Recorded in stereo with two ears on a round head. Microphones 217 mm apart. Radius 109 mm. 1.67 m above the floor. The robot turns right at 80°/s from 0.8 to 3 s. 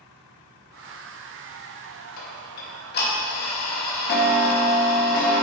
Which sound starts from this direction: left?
Ticking, at 2.2 s.